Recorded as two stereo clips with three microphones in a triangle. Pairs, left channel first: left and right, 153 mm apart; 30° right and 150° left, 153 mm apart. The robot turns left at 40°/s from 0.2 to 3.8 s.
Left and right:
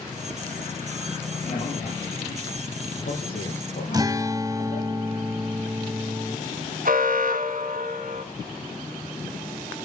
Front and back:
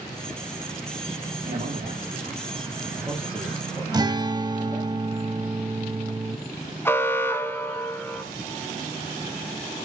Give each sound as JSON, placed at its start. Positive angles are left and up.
{"t": 1.4, "sound": "a man speaking", "azimuth_deg": 140, "distance_m": 10.0}
{"t": 3.9, "sound": "a guitar", "azimuth_deg": -150, "distance_m": 0.9}
{"t": 6.8, "sound": "an alarm", "azimuth_deg": -105, "distance_m": 2.0}